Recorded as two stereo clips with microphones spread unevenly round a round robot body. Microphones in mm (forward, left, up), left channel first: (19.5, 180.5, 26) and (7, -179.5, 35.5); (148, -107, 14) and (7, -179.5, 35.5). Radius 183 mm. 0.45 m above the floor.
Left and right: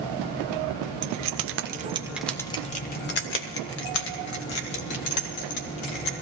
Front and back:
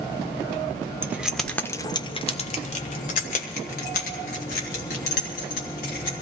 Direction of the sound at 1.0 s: 70° right.